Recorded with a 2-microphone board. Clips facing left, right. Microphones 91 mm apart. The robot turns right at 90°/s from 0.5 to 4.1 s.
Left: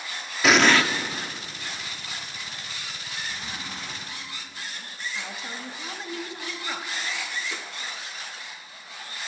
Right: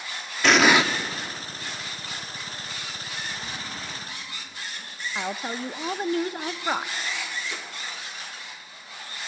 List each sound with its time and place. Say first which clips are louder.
0.4 s an explosion: even; 175° left, 0.8 m; by 0.8 s 155° right, 0.8 m
3.2 s a zipper: left 1 dB; 10° right, 9.5 m; by 4.0 s 60° left, 9.5 m
5.2 s a woman speaking: right 11 dB; 50° right (ahead or behind), 0.6 m